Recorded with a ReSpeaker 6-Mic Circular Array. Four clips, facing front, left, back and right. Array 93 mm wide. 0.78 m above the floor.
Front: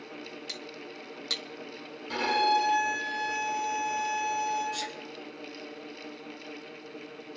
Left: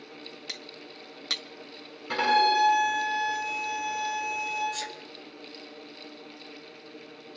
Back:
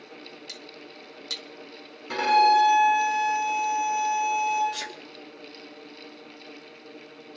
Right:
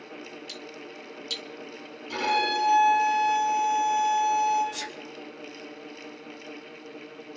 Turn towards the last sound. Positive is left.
turn(degrees=-160)